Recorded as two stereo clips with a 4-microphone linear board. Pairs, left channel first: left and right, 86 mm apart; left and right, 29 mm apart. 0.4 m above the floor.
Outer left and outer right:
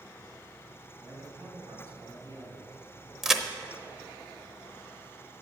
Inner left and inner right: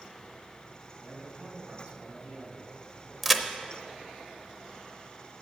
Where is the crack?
5° right (ahead or behind), 0.7 m.